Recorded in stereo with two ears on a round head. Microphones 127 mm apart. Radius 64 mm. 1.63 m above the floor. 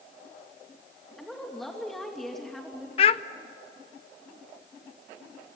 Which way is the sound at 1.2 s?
Centre (ahead or behind).